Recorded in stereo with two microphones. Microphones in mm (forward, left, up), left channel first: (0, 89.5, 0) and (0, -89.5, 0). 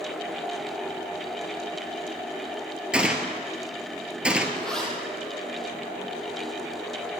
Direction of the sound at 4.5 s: 5° left (ahead or behind).